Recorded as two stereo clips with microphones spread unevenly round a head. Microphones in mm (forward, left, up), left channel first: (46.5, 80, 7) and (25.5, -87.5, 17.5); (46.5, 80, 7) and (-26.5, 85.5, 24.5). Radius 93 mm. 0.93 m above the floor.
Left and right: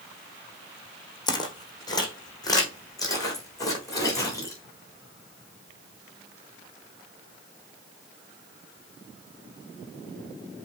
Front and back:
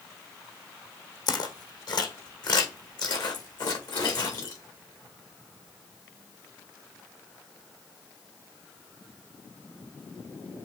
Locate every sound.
1.3 s footsteps: 20° left, 1.9 m; by 4.6 s 10° left, 3.5 m